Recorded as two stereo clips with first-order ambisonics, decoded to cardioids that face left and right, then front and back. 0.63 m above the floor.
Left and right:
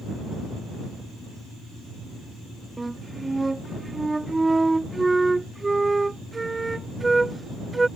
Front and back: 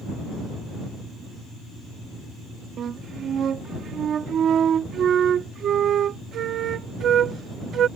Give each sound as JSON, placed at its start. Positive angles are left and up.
{"t": 2.8, "sound": "a flute", "azimuth_deg": -165}